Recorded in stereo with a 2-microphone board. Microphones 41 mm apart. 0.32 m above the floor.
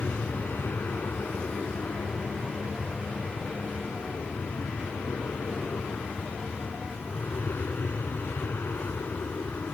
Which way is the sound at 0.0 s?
60° left (ahead or behind).